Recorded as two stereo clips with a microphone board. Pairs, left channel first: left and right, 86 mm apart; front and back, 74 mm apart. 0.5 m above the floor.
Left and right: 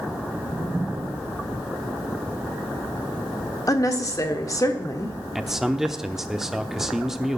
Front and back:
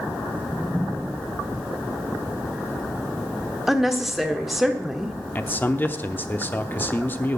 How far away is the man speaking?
About 0.7 m.